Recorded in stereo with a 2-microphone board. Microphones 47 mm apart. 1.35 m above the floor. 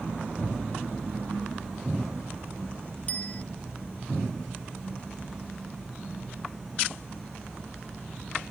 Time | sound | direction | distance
3.1 | a bicycle bell | 40° left (ahead or behind) | ?